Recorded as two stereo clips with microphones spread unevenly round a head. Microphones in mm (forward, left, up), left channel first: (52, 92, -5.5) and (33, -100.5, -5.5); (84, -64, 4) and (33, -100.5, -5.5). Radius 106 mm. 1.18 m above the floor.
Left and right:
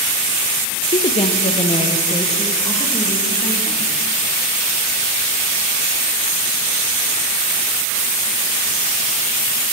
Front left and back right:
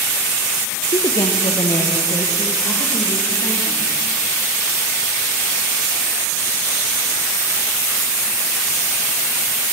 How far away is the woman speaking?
About 0.6 m.